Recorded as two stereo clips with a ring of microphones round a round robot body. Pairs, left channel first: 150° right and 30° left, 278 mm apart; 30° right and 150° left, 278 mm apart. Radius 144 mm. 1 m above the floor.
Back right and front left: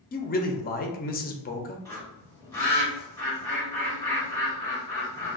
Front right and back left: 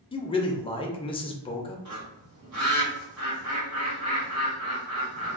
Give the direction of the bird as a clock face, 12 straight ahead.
8 o'clock.